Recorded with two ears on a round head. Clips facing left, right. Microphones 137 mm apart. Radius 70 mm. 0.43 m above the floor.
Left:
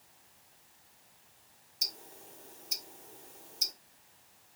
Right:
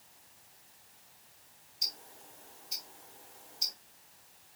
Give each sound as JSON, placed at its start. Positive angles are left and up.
{"t": 1.8, "sound": "ticking", "side_deg": 65, "distance_m": 1.7}